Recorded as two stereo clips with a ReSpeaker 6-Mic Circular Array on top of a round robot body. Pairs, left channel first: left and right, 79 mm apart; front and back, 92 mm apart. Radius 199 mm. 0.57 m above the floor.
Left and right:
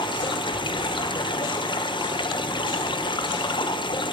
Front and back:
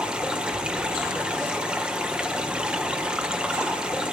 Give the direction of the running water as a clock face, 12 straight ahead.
9 o'clock.